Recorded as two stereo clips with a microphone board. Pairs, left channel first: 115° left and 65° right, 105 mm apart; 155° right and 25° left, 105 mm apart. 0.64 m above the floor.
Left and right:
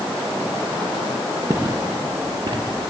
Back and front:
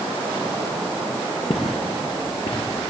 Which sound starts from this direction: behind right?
Footsteps, at 1.5 s.